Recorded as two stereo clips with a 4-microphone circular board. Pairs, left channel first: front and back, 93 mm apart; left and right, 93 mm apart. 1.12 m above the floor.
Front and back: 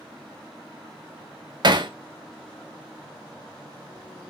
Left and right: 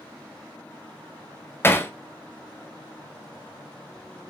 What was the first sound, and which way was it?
Hammering, 150° left.